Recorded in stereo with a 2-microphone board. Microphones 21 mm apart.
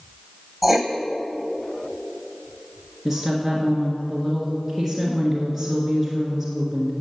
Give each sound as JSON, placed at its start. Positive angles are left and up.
{"t": 0.6, "sound": "writing", "side_deg": -5, "distance_m": 0.9}
{"t": 3.0, "sound": "a woman speaking", "side_deg": 0, "distance_m": 1.4}